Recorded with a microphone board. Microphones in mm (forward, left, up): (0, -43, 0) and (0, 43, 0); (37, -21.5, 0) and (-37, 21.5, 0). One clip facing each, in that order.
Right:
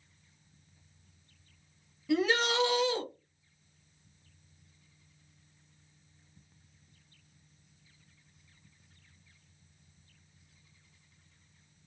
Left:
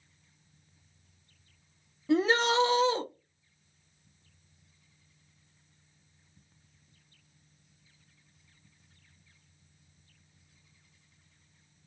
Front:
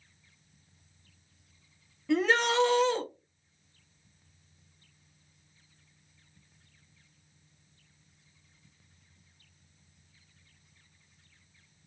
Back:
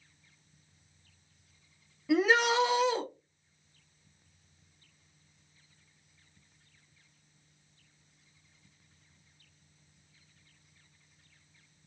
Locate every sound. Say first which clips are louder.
2.1 s a shout: left 3 dB, back 1 dB; 70° left, 0.7 m